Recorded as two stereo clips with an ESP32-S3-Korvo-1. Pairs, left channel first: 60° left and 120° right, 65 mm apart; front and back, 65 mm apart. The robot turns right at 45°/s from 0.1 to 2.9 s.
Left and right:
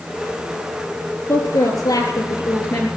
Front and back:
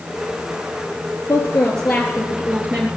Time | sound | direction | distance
1.3 | a woman speaking | 50° left | 3.5 m